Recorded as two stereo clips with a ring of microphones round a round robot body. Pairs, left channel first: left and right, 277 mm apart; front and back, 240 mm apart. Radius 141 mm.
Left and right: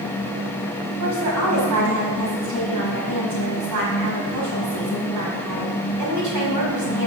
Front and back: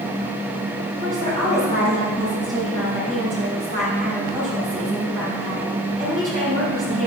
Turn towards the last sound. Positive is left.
turn(degrees=-115)